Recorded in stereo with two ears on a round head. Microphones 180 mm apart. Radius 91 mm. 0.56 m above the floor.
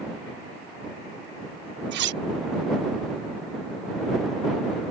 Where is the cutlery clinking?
55° right (ahead or behind).